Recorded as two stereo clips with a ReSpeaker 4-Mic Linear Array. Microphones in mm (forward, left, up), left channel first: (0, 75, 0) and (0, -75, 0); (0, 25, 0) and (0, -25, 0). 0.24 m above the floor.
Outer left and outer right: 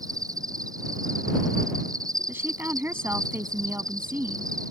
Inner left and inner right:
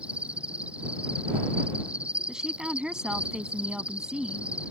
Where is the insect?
25° right (ahead or behind).